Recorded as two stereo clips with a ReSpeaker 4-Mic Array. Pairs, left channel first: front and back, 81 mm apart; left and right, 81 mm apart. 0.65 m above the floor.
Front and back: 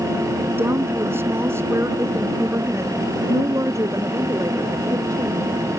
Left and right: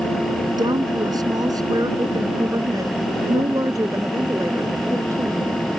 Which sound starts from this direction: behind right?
A woman speaking, at 0.6 s.